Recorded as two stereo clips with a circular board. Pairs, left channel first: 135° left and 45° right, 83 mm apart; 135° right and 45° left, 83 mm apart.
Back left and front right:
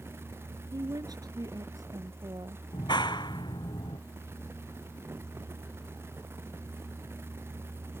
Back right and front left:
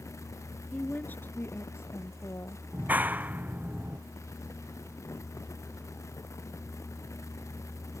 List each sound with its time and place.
0.7 s a woman speaking: 65° right; by 2.6 s 85° right
2.7 s a clap: 115° left